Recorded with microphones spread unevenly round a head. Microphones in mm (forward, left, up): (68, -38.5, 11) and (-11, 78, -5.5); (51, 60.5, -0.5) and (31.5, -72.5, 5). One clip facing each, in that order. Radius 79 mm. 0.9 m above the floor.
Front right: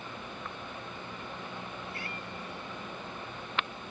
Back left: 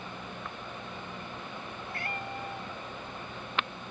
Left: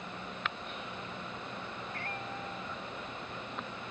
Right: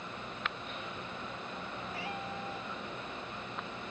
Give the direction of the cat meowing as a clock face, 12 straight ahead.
6 o'clock.